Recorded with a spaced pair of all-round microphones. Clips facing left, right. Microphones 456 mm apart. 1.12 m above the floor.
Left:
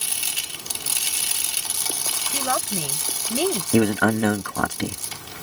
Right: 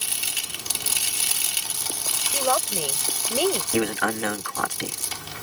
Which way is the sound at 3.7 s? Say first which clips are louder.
Left 6 dB; 60° left (ahead or behind).